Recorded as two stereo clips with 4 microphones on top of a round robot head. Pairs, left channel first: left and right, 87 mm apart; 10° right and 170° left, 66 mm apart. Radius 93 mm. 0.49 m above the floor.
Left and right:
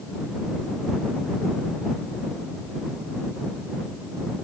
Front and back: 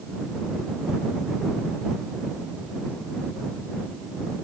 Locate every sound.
Only background noise.